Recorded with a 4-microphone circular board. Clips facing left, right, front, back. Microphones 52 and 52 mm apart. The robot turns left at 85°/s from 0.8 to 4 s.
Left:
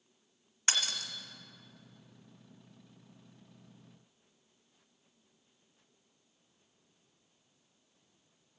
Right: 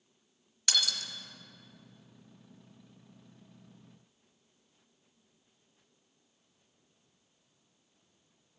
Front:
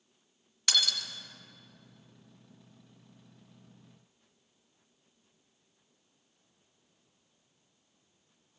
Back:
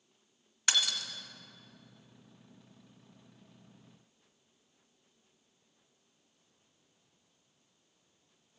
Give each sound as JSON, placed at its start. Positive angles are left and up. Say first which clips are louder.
{"t": 0.7, "sound": "breaking glass", "louder": "right 1 dB, front 1 dB", "azimuth_deg": 115, "distance_m": 1.4}